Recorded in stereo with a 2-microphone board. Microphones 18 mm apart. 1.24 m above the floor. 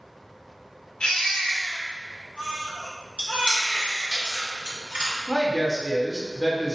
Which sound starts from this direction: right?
Chewing, at 3.2 s.